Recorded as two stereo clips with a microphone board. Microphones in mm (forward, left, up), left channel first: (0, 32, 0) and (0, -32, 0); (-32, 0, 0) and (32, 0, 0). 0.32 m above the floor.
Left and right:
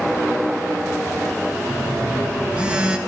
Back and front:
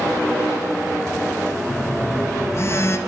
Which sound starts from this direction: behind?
A phone buzzing, at 1.7 s.